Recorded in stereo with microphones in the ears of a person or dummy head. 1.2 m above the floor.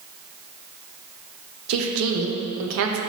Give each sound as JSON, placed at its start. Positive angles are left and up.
{"t": 1.7, "sound": "a woman speaking", "side_deg": -75, "distance_m": 0.6}